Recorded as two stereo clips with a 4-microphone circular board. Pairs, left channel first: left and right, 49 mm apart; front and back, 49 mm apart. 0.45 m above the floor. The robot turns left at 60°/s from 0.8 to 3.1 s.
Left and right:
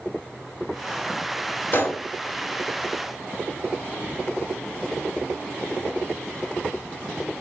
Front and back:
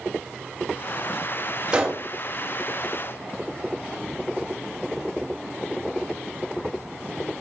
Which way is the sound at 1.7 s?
115° left.